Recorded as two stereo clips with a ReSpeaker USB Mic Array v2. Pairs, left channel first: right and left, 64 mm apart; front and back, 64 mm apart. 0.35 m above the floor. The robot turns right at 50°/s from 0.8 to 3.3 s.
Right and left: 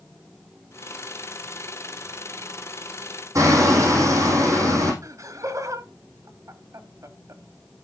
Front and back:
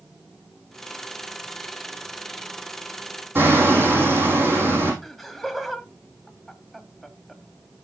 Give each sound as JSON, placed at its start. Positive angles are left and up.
{"t": 3.4, "sound": "hammering", "azimuth_deg": 125, "distance_m": 4.0}
{"t": 5.0, "sound": "laughter", "azimuth_deg": 85, "distance_m": 1.6}